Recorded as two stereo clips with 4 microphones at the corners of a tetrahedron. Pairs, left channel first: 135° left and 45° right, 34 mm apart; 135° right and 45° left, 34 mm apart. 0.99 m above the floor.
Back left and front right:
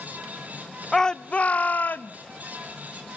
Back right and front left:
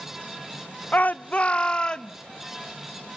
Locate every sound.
0.9 s a shout: 150° right, 0.5 m; by 2.1 s 165° left, 1.2 m